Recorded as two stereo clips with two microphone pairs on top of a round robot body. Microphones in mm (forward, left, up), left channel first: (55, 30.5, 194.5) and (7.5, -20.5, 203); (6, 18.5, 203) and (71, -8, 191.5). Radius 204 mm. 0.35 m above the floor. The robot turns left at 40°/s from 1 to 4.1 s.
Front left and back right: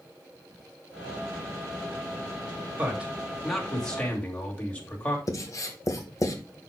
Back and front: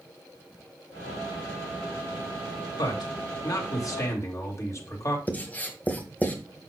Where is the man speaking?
165° left, 2.5 m; by 5.2 s 110° left, 2.5 m.